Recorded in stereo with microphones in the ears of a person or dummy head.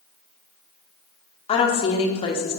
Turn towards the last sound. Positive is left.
turn(degrees=30)  # may be behind; listen again after turning